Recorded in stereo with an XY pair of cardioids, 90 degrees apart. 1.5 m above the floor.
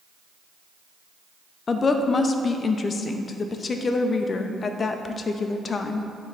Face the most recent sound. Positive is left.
turn(degrees=45)